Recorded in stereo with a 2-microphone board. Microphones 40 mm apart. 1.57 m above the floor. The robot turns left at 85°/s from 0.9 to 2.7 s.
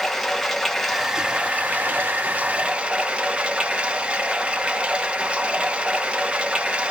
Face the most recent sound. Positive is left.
turn(degrees=-145)